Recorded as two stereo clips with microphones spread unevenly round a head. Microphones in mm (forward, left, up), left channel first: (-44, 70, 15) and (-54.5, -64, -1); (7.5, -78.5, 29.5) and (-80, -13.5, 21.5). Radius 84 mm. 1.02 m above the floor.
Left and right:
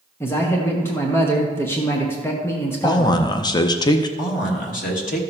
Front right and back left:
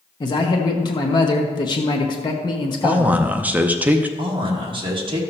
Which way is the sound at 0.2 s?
10° left.